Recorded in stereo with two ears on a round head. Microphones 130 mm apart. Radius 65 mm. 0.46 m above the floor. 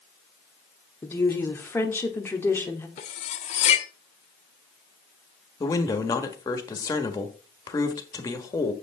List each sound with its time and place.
1.0 s a woman speaking: 15° left (ahead or behind), 1.2 m
3.0 s cutlery clinking: 45° left (ahead or behind), 0.9 m
5.6 s a man speaking: 25° left (ahead or behind), 1.4 m